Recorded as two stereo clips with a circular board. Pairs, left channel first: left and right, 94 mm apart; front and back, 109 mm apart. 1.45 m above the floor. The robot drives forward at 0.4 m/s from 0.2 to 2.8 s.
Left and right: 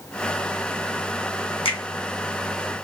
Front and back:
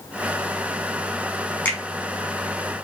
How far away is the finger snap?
About 1.1 m.